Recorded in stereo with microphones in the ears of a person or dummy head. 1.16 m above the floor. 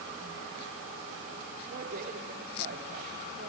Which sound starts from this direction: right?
A woman speaking, at 1.7 s.